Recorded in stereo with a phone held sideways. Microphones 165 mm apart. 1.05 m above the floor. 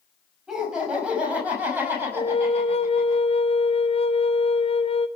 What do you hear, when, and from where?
0.5 s laughter: 5° right (ahead or behind), 6.5 m; by 3.1 s 15° right (ahead or behind), 7.5 m
2.1 s a flute: 35° left (ahead or behind), 0.7 m